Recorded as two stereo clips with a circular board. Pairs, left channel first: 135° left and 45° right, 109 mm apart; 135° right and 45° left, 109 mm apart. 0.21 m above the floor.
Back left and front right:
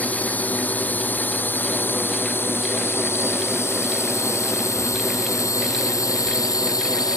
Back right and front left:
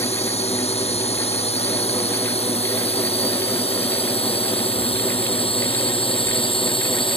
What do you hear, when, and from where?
0.0 s a drone: 150° right; by 7.2 s 170° right